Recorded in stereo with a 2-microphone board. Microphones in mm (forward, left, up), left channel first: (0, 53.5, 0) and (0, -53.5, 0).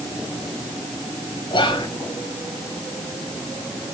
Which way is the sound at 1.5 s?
45° left (ahead or behind).